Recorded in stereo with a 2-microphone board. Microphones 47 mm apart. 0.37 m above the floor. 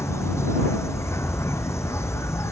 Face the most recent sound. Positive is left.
turn(degrees=75)  # may be behind; listen again after turning